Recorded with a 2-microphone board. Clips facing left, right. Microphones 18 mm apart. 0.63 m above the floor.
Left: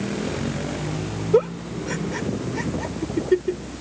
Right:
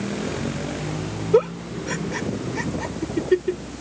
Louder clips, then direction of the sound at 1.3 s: Right 1 dB; 10° right (ahead or behind).